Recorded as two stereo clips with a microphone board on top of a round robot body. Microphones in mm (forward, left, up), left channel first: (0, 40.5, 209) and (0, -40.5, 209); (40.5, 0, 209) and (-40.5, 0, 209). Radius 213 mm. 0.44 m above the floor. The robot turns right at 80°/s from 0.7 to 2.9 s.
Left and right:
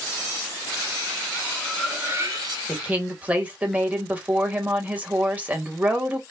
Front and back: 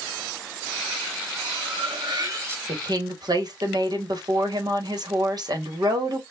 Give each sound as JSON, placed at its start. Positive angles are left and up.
{"t": 1.4, "sound": "cutlery clinking", "azimuth_deg": 145, "distance_m": 1.7}
{"t": 2.7, "sound": "a woman speaking", "azimuth_deg": -175, "distance_m": 1.8}